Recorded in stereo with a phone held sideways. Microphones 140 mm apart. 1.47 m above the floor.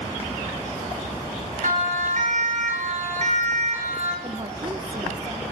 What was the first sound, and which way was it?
A siren, 70° right (ahead or behind).